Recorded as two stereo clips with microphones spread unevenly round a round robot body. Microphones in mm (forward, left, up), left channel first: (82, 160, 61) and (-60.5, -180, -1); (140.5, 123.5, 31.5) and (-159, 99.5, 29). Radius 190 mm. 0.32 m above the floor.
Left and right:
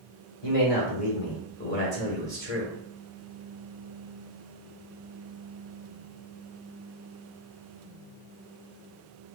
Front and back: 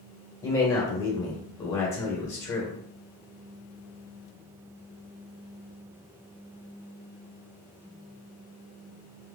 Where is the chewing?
No chewing in this recording.